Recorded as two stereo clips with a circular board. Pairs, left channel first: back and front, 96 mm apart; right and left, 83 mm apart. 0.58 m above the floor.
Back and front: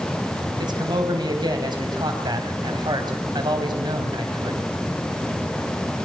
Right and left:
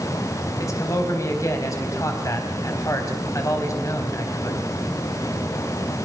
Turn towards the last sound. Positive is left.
turn(degrees=-40)